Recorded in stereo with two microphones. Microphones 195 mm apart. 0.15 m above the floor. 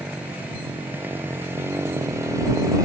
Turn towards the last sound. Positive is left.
turn(degrees=-15)  # may be behind; listen again after turning